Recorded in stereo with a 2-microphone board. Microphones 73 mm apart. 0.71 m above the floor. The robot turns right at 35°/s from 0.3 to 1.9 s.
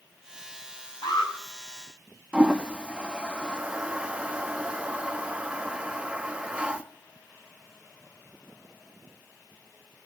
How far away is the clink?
No clink in this recording.